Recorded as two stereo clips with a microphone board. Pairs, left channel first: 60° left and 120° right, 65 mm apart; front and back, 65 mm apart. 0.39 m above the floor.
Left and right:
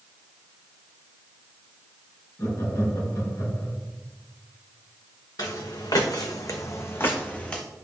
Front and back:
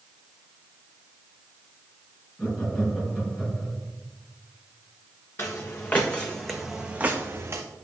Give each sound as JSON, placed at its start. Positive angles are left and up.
{"t": 2.4, "sound": "laughter", "azimuth_deg": 80, "distance_m": 4.0}
{"t": 5.4, "sound": "footsteps", "azimuth_deg": 50, "distance_m": 1.5}